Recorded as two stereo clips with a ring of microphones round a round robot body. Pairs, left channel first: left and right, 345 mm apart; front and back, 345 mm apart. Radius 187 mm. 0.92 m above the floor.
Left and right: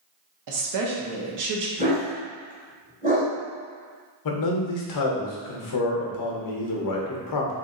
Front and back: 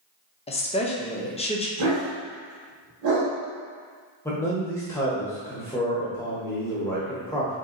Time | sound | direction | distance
0.5 | a woman speaking | 70° right | 0.7 m
1.8 | a dog barking | 160° right | 1.4 m
4.2 | a man speaking | 80° left | 0.7 m